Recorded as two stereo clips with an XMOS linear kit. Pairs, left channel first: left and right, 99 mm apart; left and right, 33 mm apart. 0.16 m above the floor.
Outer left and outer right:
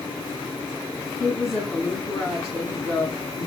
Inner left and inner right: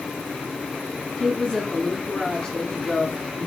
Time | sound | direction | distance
1.2 | a woman speaking | 30° left (ahead or behind) | 1.5 m